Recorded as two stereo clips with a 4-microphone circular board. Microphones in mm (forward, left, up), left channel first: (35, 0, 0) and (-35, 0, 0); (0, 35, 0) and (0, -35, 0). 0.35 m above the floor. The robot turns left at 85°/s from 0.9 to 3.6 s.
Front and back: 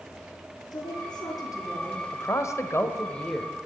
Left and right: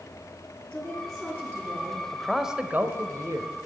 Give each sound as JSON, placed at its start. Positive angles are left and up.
{"t": 0.7, "sound": "a woman speaking", "azimuth_deg": 10, "distance_m": 5.0}
{"t": 2.1, "sound": "a man speaking", "azimuth_deg": 20, "distance_m": 1.2}